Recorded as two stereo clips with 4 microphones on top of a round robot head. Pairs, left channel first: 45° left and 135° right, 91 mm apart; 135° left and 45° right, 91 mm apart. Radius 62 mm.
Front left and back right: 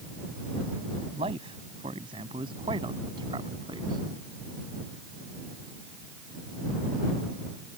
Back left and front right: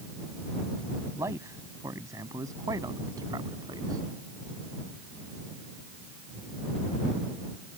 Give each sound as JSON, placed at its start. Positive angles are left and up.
{"t": 1.1, "sound": "a man speaking", "azimuth_deg": -105}